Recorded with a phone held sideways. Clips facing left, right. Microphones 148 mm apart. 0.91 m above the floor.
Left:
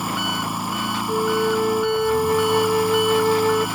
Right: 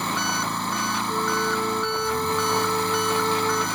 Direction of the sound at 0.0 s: 10° left (ahead or behind).